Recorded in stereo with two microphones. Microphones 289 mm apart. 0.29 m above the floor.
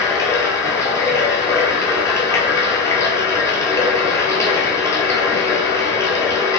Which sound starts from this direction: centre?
Running water, at 0.0 s.